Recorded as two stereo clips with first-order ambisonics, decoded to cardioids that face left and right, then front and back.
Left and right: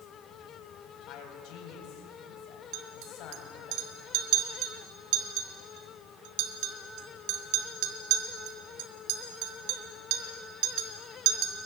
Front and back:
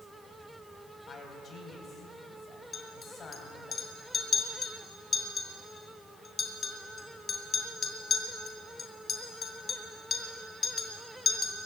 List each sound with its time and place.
1.1 s a man speaking: 65° left, 3.5 m
2.7 s a clink: 70° right, 2.5 m